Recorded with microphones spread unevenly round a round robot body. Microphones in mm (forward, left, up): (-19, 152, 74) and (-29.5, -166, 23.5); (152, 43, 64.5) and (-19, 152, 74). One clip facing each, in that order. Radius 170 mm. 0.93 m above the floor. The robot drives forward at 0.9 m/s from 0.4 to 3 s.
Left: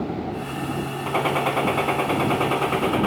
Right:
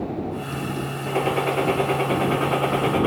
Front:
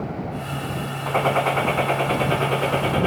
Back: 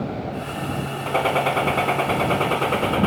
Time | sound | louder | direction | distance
1.1 | a gunshot | right 2 dB, even | 90° left | 2.5 m